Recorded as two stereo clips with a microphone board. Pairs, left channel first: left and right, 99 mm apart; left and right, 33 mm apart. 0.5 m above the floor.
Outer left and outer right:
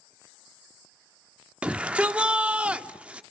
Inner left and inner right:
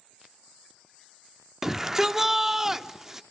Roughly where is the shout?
Centre.